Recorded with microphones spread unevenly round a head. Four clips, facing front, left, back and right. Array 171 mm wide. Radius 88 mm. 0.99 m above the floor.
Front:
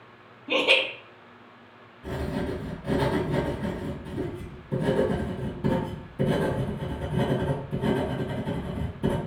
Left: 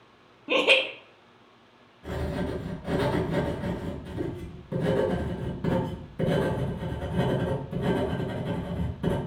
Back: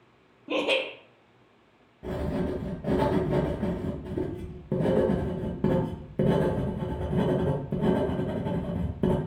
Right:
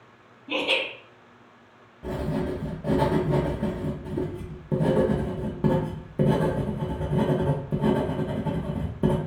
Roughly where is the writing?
Behind right.